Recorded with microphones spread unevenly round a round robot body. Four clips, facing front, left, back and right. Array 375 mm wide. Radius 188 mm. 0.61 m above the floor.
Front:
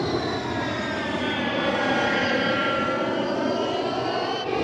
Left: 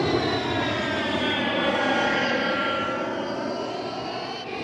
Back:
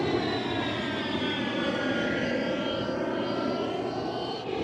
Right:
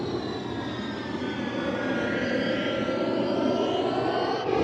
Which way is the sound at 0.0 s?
90° left.